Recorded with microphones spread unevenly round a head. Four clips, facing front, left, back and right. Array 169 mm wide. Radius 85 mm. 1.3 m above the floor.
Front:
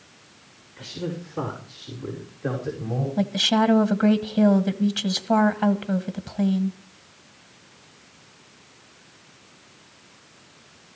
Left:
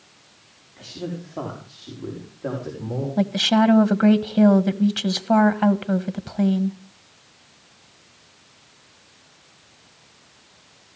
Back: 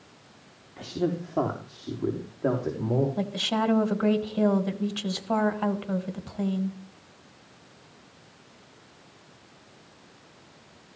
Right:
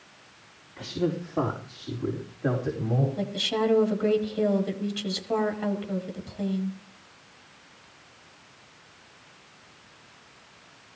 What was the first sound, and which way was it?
A man speaking, 170° right.